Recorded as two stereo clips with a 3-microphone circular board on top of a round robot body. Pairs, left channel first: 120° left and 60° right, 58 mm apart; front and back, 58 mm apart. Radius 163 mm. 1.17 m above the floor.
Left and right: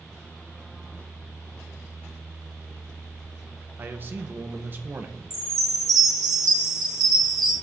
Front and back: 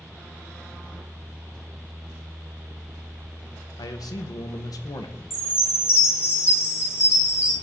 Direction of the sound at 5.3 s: 40° right.